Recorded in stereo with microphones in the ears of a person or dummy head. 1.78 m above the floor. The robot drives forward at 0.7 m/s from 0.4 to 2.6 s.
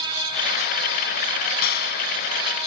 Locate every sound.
1.6 s a clap: 60° left (ahead or behind)